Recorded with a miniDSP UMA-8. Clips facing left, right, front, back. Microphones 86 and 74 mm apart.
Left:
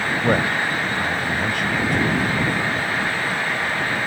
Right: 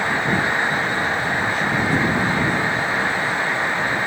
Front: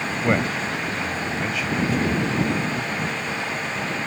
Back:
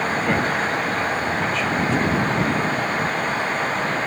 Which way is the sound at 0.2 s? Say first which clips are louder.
Even, back 2 dB; 65° left.